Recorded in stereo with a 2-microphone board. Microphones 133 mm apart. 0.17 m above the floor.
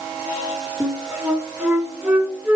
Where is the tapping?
I don't hear tapping.